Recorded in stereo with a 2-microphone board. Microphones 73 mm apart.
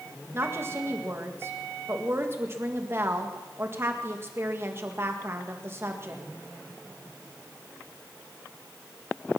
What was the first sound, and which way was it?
A woman speaking, 35° right (ahead or behind).